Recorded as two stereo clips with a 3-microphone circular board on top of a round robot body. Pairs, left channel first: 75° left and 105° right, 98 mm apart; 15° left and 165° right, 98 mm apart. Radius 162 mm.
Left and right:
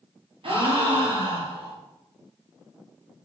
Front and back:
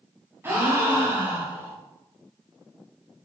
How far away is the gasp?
About 2.0 m.